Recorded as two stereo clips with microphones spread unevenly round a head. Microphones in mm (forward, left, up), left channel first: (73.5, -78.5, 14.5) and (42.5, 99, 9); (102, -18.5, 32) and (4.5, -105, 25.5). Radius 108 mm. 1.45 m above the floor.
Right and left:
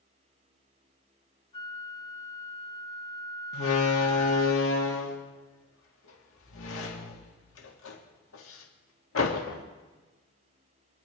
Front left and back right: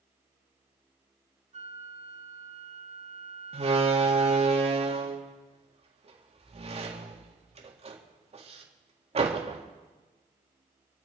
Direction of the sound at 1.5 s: 135° right.